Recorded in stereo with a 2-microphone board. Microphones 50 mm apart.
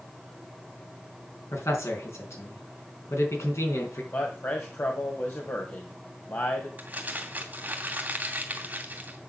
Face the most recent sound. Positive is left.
turn(degrees=-35)  # may be behind; listen again after turning